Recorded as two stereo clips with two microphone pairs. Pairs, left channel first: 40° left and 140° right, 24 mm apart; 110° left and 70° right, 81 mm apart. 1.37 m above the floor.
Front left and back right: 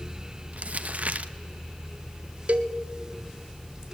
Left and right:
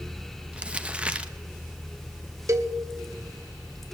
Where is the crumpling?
145° right, 1.0 m.